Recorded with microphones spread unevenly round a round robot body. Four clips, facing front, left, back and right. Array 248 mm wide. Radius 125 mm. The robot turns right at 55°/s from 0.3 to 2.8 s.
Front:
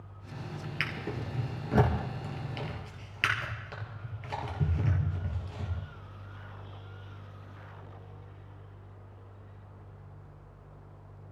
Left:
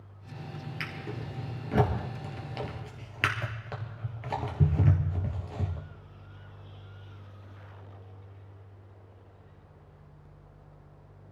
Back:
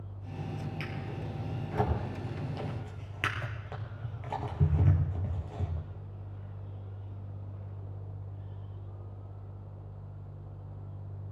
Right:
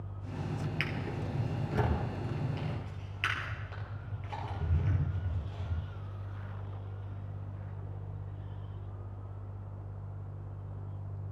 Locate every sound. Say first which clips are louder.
0.8 s a drawer: right 2 dB, front 3 dB; 10° right, 3.5 m; by 5.8 s 100° left, 3.5 m